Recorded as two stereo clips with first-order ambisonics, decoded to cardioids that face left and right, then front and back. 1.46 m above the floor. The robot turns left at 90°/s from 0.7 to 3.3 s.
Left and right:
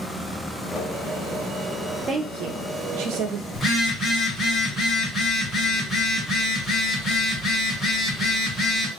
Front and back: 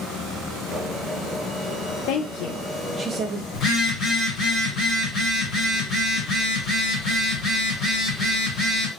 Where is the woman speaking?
20° right, 0.5 m; by 3.4 s 135° right, 0.5 m.